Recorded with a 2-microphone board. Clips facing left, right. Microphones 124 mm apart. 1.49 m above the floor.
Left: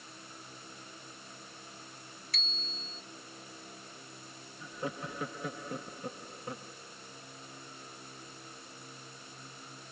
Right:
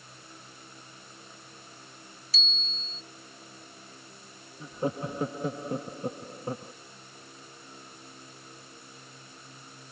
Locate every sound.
2.3 s a bicycle bell: 60° left (ahead or behind)
4.6 s laughter: 35° right (ahead or behind)